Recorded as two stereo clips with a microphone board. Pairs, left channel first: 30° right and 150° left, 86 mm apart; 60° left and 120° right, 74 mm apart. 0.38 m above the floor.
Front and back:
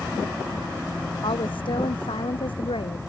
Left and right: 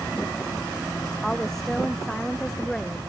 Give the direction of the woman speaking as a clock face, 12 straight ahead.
1 o'clock.